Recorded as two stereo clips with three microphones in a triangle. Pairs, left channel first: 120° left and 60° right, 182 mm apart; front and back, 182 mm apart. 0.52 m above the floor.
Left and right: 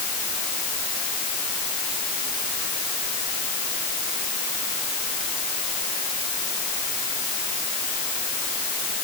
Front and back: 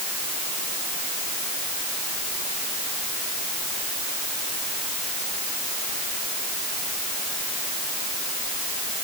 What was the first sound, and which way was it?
Only background noise.